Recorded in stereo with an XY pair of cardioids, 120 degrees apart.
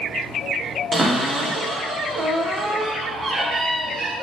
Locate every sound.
0.9 s a cupboard door: 30° right, 0.8 m